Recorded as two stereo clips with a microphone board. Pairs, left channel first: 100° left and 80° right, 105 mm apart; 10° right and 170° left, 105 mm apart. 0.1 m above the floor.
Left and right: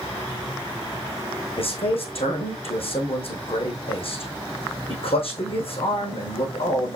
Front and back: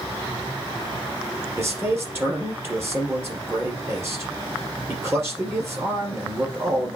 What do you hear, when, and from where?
1.6 s a man speaking: 105° left, 3.5 m